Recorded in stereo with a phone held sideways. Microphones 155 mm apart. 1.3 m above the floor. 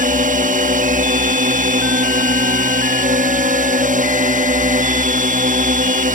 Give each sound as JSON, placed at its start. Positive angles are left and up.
{"t": 0.0, "sound": "a drone", "side_deg": -60}